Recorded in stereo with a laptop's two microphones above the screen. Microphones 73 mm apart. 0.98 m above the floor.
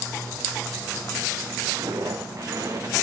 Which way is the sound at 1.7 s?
60° right (ahead or behind).